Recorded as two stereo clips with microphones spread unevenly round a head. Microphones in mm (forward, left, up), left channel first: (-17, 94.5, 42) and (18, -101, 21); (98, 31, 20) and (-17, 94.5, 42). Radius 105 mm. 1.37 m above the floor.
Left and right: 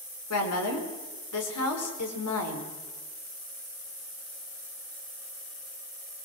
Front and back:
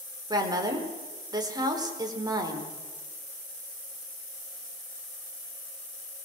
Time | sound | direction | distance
0.3 | a woman speaking | 90° left | 4.5 m